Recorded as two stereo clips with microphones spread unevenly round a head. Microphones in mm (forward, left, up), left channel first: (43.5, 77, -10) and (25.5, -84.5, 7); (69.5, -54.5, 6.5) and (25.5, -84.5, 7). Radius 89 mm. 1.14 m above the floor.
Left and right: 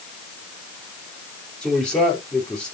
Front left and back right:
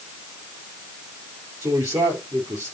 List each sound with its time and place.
1.6 s a man speaking: 170° left, 4 m